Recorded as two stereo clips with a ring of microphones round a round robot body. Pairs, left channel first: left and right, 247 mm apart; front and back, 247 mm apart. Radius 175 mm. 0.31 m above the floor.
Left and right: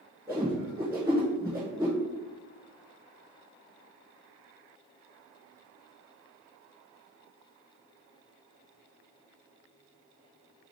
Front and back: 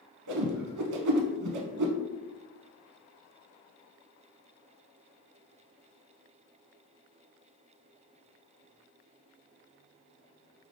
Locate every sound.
0.3 s a whoosh: 170° right, 0.6 m